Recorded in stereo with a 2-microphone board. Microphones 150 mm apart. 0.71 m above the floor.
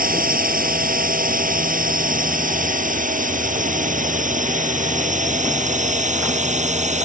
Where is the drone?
75° right (ahead or behind); by 7.1 s 55° right (ahead or behind).